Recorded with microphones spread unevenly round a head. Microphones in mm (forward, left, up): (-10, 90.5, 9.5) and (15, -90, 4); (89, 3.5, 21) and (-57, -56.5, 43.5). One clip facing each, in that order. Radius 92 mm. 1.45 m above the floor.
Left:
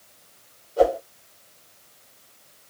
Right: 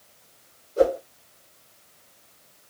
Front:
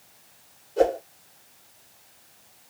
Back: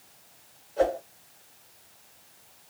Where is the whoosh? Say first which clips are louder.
Left 1 dB, front 4 dB; 20° right, 3.5 m.